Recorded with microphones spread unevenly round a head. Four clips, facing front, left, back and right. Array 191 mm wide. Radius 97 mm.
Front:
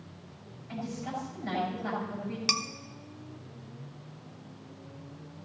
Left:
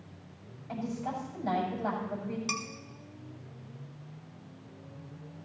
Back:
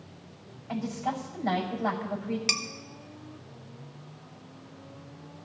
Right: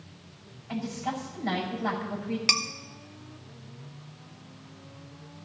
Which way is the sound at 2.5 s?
65° right.